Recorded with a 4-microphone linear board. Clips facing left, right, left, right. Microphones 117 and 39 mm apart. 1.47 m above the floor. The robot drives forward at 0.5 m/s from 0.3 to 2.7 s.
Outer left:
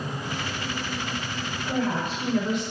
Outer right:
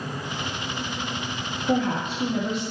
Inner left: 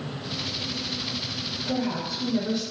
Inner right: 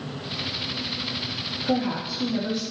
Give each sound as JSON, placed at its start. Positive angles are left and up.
{"t": 1.6, "sound": "a woman speaking", "side_deg": -80, "distance_m": 1.0}